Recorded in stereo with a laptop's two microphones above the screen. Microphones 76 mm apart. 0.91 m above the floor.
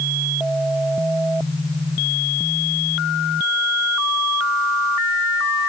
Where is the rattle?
I don't hear a rattle.